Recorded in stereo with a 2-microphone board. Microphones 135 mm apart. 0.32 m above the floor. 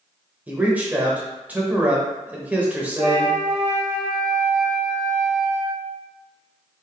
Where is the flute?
45° right (ahead or behind), 1.1 m.